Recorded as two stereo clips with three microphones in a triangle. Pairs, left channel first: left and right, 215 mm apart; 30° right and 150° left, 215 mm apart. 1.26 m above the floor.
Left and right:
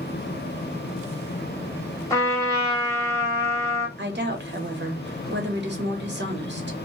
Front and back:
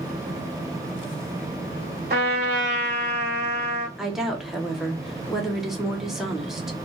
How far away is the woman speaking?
About 0.9 m.